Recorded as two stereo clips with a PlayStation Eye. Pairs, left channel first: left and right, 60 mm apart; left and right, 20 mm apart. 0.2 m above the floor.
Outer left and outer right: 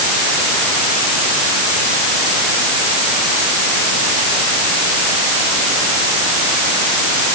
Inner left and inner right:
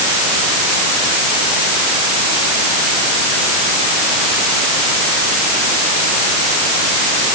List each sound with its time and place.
Only background noise.